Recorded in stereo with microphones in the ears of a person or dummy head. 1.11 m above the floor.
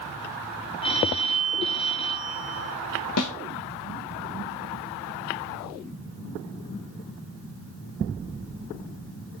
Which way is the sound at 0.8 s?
35° left (ahead or behind).